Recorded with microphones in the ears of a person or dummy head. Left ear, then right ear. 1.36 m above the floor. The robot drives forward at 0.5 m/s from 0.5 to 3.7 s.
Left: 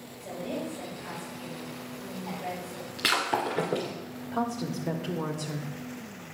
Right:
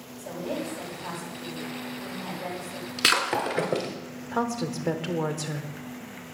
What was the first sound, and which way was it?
A woman speaking, 65° right (ahead or behind).